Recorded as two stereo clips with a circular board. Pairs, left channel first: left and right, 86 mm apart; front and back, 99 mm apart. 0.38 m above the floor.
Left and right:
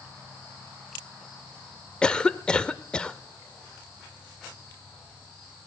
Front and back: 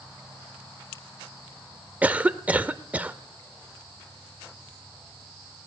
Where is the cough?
140° left, 0.9 m.